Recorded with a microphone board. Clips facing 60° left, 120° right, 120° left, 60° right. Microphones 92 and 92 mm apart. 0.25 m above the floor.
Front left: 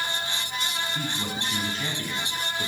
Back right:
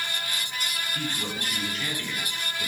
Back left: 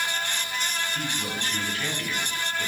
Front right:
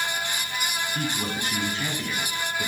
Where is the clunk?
I don't hear a clunk.